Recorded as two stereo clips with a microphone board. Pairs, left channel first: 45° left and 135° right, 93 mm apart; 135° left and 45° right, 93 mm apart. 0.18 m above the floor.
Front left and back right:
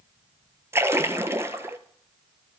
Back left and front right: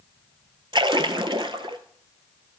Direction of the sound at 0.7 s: 75° right.